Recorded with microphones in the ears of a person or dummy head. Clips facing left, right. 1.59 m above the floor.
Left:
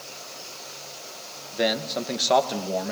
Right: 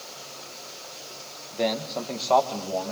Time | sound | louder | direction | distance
1.5 | a man speaking | left 1 dB | 10° left (ahead or behind) | 1.8 m